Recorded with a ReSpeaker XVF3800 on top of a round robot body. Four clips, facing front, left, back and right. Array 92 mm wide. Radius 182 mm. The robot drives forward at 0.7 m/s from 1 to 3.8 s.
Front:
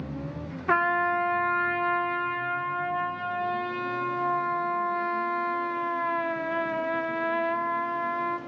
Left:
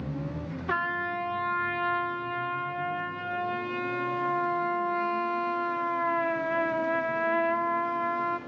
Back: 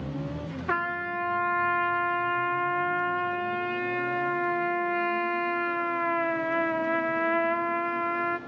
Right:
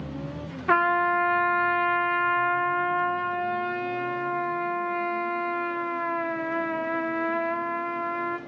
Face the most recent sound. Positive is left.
turn(degrees=-145)